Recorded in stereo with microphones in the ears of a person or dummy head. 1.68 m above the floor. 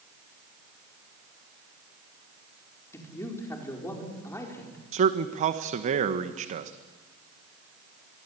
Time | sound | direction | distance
2.9 | a man speaking | 15° left (ahead or behind) | 4.5 m
4.9 | a man speaking | 45° right (ahead or behind) | 1.3 m